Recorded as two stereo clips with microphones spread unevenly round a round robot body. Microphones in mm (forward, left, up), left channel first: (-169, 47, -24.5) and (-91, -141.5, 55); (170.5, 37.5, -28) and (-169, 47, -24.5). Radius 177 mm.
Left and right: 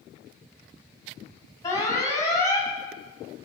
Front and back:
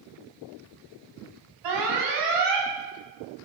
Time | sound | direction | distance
1.6 | an alarm | straight behind | 5 m